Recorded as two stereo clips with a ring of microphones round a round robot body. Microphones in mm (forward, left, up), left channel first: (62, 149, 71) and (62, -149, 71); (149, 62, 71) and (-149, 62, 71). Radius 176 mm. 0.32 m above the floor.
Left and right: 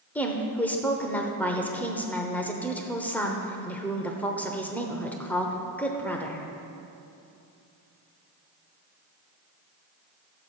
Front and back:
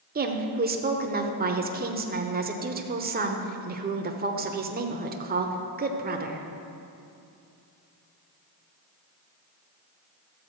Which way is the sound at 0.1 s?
170° left.